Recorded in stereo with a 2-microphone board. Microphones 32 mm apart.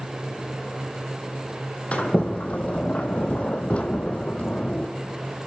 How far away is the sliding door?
About 1.0 m.